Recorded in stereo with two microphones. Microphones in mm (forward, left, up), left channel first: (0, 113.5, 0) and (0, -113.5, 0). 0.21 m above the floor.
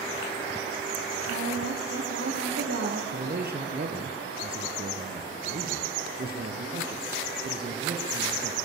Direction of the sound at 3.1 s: 45° right (ahead or behind).